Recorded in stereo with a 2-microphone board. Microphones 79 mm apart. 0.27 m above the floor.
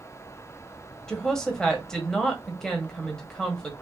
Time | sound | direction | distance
1.1 | a woman speaking | 5° left (ahead or behind) | 1.6 m